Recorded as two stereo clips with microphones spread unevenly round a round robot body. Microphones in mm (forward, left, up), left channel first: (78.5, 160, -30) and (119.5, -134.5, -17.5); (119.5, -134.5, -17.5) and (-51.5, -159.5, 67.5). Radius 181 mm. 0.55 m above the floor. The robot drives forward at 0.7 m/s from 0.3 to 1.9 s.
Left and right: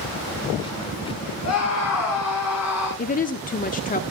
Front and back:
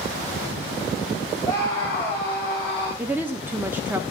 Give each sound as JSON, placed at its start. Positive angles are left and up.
{"t": 1.4, "sound": "a scream", "azimuth_deg": 65, "distance_m": 4.5}
{"t": 3.0, "sound": "a woman speaking", "azimuth_deg": 70, "distance_m": 1.0}